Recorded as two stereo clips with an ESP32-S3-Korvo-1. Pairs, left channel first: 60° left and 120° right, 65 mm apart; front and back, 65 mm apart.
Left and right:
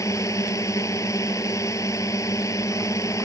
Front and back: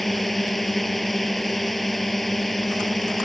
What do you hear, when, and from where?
0.0 s a drone: 90° left